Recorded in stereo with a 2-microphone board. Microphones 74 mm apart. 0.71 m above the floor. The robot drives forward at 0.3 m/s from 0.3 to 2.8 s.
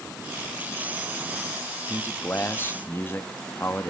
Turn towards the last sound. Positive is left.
turn(degrees=30)  # may be behind; listen again after turning